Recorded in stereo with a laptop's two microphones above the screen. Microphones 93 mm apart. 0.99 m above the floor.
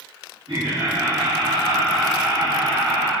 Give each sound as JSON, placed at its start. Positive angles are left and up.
{"t": 0.5, "sound": "laughter", "side_deg": -65, "distance_m": 2.0}